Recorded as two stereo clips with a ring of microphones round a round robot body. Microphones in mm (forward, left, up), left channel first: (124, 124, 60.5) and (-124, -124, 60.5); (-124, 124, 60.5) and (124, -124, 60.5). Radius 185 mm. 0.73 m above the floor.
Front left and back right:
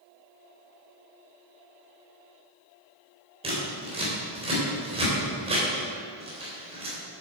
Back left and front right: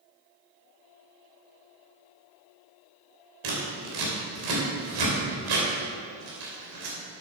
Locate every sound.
3.4 s scissors: 60° right, 3 m